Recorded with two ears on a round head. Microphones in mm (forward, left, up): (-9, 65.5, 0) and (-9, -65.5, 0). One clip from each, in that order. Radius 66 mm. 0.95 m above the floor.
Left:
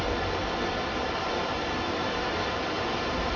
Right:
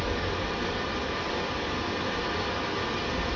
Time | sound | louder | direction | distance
0.0 | running water | left 1 dB | 25° left (ahead or behind) | 1.2 m